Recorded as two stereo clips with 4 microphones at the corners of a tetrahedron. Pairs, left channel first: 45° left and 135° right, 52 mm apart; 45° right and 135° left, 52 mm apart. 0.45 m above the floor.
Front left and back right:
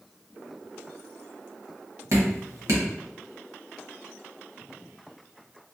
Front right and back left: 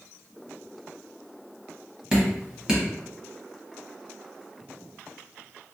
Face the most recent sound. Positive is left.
turn(degrees=-150)